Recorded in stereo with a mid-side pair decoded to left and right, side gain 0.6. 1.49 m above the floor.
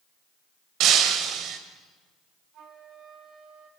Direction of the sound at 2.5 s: 55° right.